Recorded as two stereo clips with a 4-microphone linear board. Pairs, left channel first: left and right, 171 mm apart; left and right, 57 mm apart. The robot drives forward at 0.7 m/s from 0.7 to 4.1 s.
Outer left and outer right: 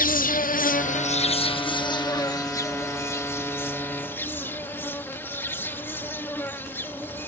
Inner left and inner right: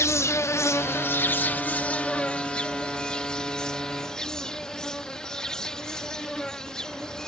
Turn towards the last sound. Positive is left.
turn(degrees=10)  # may be behind; listen again after turning